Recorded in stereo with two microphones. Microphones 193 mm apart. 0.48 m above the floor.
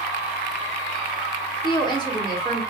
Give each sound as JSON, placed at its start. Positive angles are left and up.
{"t": 1.6, "sound": "a woman speaking", "side_deg": 25, "distance_m": 1.4}